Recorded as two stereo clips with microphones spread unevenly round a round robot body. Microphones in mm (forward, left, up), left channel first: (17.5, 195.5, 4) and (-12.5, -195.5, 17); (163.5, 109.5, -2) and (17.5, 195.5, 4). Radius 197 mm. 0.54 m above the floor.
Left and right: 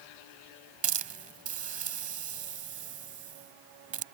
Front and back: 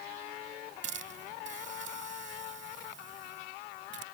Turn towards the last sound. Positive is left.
turn(degrees=-165)